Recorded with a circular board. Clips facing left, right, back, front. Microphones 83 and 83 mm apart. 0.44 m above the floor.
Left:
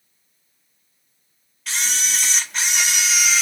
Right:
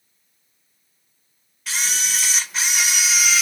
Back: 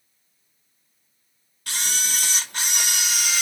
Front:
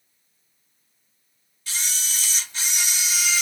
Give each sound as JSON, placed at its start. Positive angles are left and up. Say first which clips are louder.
{"t": 1.7, "sound": "a camera shutter", "louder": "even, back 4 dB", "azimuth_deg": -175, "distance_m": 0.7}